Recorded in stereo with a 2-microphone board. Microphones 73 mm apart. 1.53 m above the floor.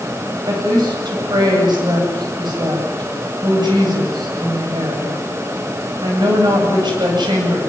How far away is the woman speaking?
About 8.5 m.